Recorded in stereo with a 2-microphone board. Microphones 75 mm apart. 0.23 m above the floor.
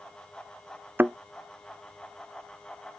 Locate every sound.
1.0 s a thud: 25° right (ahead or behind)